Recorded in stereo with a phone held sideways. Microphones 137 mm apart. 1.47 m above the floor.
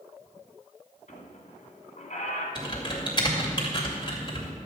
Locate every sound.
1.1 s a squeak: 65° left (ahead or behind), 1.7 m
2.5 s typing on a keyboard: 30° left (ahead or behind), 2.5 m